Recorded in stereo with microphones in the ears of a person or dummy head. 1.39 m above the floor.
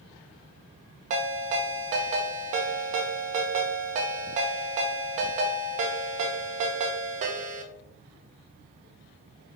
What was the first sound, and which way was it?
A ringtone, 45° right (ahead or behind).